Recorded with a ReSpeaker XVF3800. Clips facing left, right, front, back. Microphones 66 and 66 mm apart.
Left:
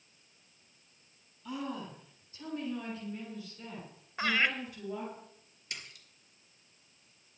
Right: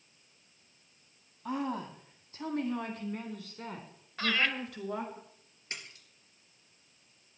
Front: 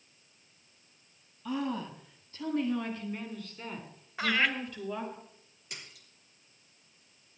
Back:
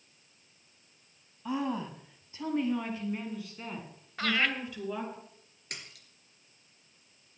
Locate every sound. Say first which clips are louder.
1.4 s a woman speaking: right 4 dB, back 1 dB; 115° right, 2.5 m; by 5.2 s 90° right, 4 m
4.2 s laughter: left 1 dB, front 1 dB; 60° left, 1.5 m
5.7 s a splash: right 2 dB, back 2 dB; 150° right, 3.5 m